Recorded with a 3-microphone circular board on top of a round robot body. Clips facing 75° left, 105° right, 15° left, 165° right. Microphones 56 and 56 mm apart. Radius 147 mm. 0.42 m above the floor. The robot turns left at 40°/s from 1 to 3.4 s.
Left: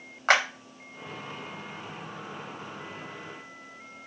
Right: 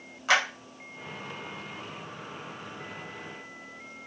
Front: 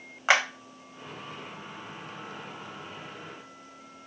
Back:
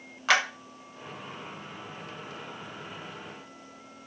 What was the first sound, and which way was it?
A clap, 75° left.